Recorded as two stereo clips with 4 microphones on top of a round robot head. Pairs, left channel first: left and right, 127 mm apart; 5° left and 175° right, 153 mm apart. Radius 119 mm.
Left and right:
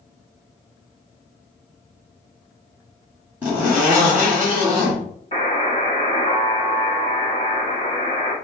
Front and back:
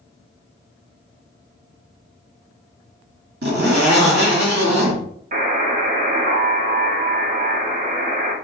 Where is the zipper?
170° right, 1.7 m.